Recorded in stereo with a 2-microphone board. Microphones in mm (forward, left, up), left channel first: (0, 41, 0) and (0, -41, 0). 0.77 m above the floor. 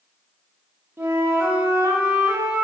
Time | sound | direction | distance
1.0 | a flute | 25° right (ahead or behind) | 1.0 m